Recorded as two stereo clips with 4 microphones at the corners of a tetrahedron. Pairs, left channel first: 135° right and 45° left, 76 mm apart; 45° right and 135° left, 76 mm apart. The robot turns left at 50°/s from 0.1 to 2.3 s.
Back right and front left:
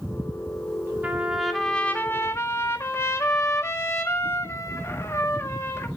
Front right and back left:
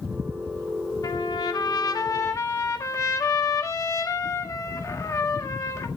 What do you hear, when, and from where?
1.0 s a trumpet: 25° right, 1.8 m; by 5.9 s 85° right, 1.8 m